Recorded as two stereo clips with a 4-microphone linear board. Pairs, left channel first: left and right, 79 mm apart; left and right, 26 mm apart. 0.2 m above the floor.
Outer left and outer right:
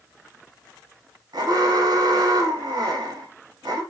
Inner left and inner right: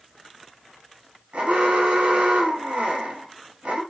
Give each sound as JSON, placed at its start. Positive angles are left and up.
{"t": 1.3, "sound": "an alarm", "side_deg": -55, "distance_m": 1.2}